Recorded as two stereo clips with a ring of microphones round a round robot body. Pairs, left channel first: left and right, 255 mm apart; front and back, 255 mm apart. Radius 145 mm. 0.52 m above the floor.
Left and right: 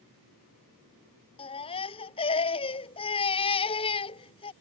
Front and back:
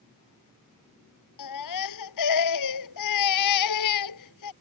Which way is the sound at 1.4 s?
20° left.